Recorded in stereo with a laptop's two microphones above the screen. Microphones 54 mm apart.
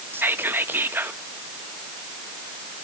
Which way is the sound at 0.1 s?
40° right (ahead or behind).